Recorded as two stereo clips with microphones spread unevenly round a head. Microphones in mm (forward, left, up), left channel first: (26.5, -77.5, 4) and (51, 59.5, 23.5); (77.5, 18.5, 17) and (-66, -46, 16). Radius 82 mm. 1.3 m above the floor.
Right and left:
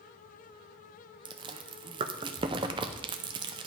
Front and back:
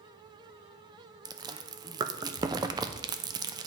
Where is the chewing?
140° left, 0.5 m.